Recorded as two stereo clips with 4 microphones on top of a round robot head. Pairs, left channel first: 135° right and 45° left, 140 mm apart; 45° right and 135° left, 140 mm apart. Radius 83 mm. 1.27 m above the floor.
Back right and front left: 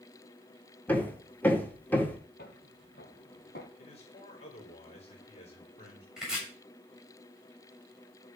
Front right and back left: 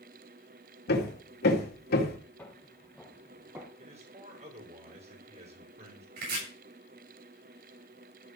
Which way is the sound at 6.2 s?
130° left.